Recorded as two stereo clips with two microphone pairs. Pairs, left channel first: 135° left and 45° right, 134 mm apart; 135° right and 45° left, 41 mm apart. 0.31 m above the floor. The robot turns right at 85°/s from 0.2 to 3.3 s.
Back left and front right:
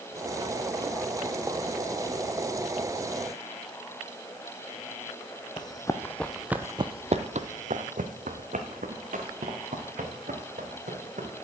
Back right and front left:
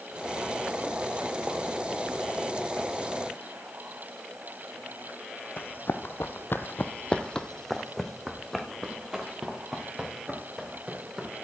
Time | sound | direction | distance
5.6 | running footsteps | 165° right | 1.0 m